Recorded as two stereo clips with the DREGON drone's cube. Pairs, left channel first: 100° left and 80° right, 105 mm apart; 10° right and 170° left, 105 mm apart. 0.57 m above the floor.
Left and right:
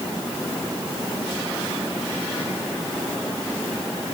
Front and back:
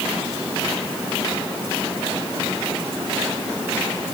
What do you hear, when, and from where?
Only background noise.